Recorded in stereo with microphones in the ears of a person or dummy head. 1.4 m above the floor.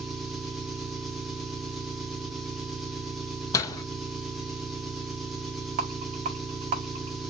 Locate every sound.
0.0 s an engine running: centre (ahead or behind), 0.8 m
3.5 s a door slam: 20° left (ahead or behind), 0.6 m
5.8 s a rattle: 45° right (ahead or behind), 1.4 m